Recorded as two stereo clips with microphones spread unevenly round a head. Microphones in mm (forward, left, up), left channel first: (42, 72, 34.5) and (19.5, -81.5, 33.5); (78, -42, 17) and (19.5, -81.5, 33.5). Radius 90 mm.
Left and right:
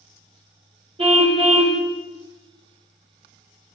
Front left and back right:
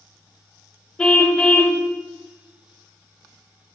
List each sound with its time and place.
1.0 s a car horn: 45° right, 2.5 m